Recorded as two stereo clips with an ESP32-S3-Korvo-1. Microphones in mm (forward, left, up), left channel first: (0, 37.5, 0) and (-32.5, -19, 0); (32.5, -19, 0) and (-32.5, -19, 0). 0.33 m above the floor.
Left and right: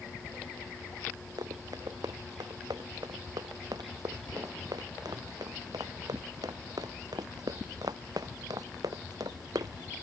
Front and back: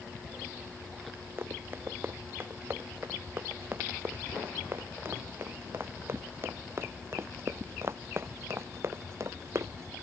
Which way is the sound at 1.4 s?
125° right.